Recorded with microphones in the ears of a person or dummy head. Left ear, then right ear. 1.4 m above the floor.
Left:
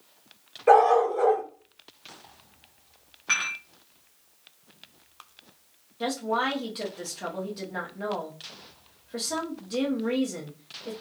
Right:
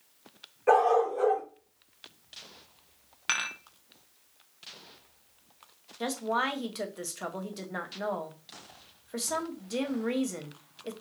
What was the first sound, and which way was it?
A dog barking, 5° right (ahead or behind).